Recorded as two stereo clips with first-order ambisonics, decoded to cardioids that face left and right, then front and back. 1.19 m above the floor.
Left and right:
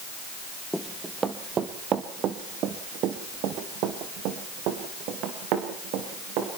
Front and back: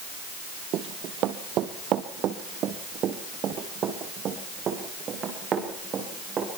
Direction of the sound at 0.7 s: 175° right.